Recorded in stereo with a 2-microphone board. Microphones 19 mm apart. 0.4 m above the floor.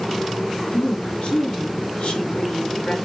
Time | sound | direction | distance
0.7 | a woman speaking | 65° left (ahead or behind) | 4 m